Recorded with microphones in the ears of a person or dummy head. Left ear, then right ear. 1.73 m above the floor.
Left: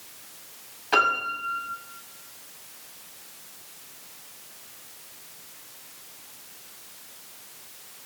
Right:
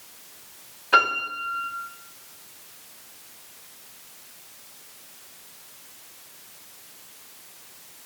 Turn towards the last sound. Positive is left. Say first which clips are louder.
# right 2 dB
turn(degrees=25)  # may be behind; listen again after turning